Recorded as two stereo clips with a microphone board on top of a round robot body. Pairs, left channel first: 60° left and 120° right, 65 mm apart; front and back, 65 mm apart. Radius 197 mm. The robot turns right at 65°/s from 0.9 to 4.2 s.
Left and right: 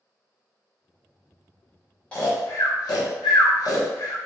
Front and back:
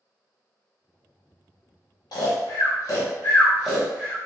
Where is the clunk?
No clunk in this recording.